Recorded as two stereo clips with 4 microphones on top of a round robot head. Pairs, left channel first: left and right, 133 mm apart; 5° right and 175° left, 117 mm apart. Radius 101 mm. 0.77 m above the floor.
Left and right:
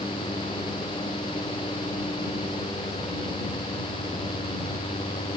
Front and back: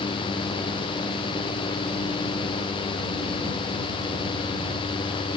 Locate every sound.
Only background noise.